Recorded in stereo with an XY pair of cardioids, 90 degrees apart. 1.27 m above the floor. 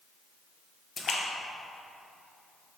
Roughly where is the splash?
Ahead left.